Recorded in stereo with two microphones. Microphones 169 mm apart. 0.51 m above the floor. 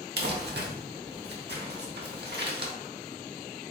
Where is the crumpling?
75° right (ahead or behind), 0.8 m.